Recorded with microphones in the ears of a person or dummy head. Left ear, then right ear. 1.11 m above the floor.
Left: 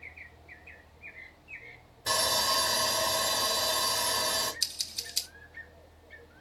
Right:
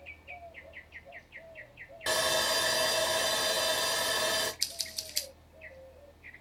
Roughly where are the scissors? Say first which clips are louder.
Left 2 dB; centre.